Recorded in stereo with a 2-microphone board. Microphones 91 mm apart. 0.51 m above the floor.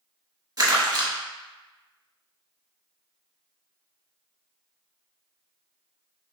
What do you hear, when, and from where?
0.6 s crumpling: 45° right (ahead or behind), 0.8 m